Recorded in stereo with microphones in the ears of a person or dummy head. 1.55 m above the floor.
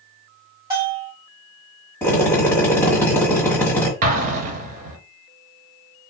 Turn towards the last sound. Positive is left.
turn(degrees=-45)  # may be behind; listen again after turning